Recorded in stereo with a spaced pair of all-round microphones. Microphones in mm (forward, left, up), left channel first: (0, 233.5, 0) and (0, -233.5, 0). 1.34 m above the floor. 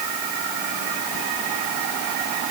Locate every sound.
Only background noise.